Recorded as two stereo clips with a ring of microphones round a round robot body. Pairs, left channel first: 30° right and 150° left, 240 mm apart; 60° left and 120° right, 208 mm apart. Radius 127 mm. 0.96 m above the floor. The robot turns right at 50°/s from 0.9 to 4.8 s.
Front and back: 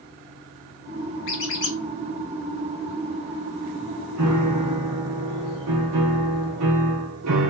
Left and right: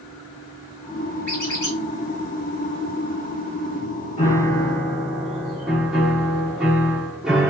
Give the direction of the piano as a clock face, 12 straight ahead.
8 o'clock.